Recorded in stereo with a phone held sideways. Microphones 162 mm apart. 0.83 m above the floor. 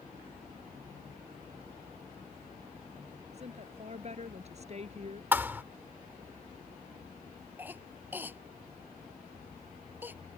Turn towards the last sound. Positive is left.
turn(degrees=-10)  # may be behind; listen again after turning